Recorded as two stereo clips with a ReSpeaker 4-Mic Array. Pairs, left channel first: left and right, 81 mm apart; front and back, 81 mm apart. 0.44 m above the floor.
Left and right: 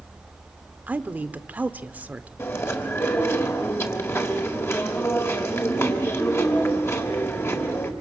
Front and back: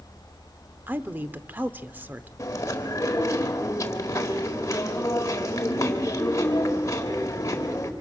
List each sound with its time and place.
0.9 s a woman speaking: 140° right, 0.8 m
2.4 s chewing: 40° left, 1.8 m